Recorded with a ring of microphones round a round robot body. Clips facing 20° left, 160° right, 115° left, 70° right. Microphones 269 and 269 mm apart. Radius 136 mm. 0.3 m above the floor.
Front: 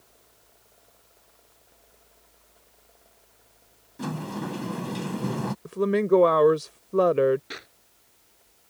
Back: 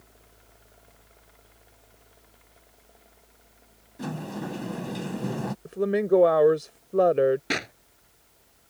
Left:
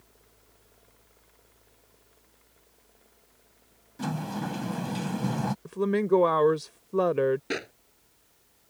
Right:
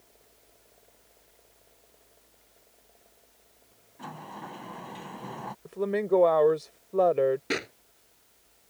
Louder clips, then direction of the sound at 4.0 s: Front 1 dB, left 12 dB; 105° left.